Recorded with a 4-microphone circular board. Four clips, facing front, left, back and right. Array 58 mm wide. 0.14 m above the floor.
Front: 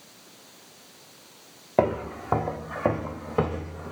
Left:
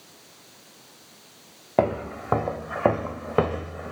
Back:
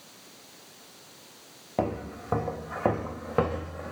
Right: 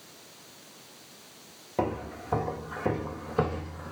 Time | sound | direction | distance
1.8 | footsteps | 50° left | 1.2 m